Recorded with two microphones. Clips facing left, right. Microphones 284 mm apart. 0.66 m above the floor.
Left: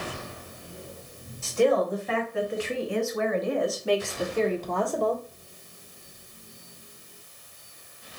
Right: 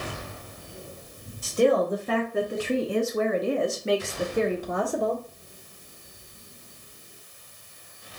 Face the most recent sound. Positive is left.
turn(degrees=-5)  # may be behind; listen again after turning